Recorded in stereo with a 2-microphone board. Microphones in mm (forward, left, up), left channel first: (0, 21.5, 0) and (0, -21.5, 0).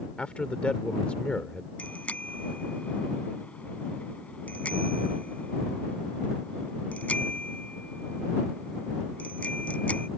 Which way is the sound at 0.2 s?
30° left (ahead or behind).